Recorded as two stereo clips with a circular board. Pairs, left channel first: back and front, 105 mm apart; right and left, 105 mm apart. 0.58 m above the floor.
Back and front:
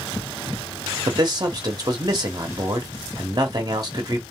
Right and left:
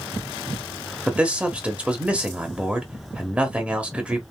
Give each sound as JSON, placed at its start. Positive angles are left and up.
{"t": 1.1, "sound": "a man speaking", "azimuth_deg": 20, "distance_m": 1.0}